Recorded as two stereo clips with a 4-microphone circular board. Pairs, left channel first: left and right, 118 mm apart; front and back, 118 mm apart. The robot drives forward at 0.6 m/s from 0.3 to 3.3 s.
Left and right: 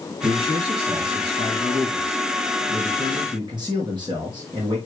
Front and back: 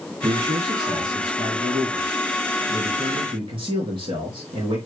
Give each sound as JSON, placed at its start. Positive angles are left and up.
{"t": 0.2, "sound": "a man speaking", "azimuth_deg": -120, "distance_m": 3.5}